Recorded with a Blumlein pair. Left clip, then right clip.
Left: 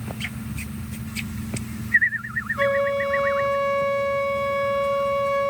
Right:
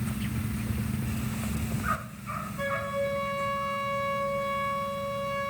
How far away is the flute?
About 1.0 m.